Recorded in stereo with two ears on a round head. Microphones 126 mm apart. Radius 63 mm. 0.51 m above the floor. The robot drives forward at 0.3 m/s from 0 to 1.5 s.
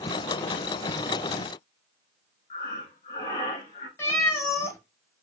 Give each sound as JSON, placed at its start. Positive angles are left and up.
{"t": 2.5, "sound": "breathing", "side_deg": 45, "distance_m": 1.4}
{"t": 4.0, "sound": "a cat meowing", "side_deg": 20, "distance_m": 0.8}